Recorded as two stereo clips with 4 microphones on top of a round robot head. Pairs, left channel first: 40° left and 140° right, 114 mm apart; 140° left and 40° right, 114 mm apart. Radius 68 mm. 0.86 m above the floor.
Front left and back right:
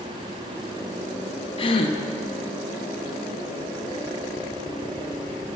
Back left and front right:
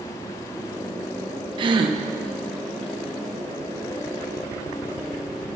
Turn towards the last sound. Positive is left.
turn(degrees=0)